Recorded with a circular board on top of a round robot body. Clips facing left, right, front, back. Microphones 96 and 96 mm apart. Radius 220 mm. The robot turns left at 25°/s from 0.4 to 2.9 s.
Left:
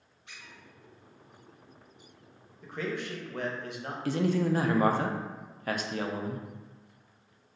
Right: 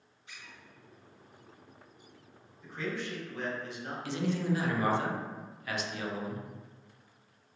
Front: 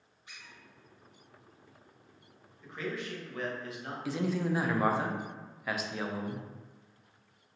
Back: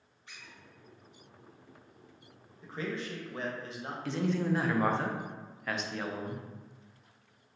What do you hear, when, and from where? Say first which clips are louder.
0.3 s a squeak: left 1 dB, even; 75° left, 1.3 m; by 0.6 s 70° left, 1.3 m
2.6 s a man speaking: left 2 dB, back 1 dB; 125° left, 1.0 m; by 4.0 s 120° left, 1.0 m
4.0 s a man speaking: left 5 dB, back 1 dB; 80° left, 0.7 m